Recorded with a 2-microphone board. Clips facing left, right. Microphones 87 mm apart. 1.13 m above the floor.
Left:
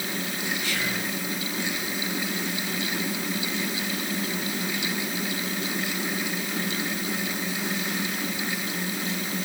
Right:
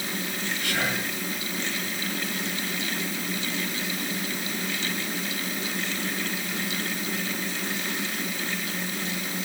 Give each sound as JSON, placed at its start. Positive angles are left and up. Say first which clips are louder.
{"t": 0.6, "sound": "whispering", "louder": "right 1 dB", "side_deg": -60, "distance_m": 7.5}